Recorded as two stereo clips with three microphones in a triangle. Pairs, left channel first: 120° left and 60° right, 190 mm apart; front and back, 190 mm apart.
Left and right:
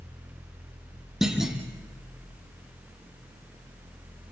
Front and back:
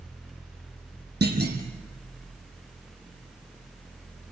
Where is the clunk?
145° right, 2.5 m.